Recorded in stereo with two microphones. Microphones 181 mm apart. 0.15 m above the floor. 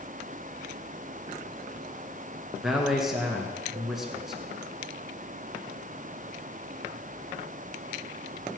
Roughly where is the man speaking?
Centre.